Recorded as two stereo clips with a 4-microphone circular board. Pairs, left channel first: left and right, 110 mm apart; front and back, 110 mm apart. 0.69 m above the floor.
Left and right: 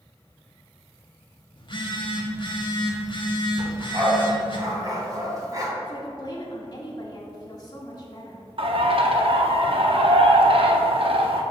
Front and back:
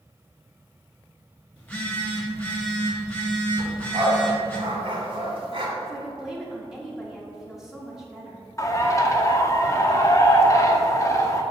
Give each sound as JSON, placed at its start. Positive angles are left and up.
{"t": 1.6, "sound": "a phone buzzing", "azimuth_deg": 75, "distance_m": 1.1}
{"t": 3.6, "sound": "a dog barking", "azimuth_deg": -145, "distance_m": 1.6}
{"t": 5.8, "sound": "a woman speaking", "azimuth_deg": 95, "distance_m": 0.9}
{"t": 8.6, "sound": "a bird", "azimuth_deg": -60, "distance_m": 0.6}